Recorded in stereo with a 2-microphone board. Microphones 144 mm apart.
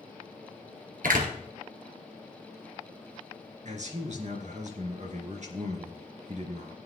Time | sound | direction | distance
1.0 | a door slam | 70° right (ahead or behind) | 2 m
3.6 | a man speaking | 55° right (ahead or behind) | 2.5 m